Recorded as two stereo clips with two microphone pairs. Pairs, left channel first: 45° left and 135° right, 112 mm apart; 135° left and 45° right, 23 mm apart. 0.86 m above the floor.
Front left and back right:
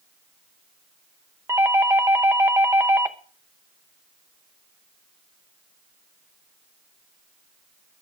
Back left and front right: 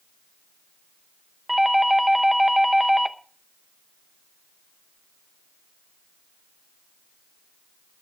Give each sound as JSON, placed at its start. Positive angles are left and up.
{"t": 1.5, "sound": "a doorbell", "azimuth_deg": -115, "distance_m": 0.8}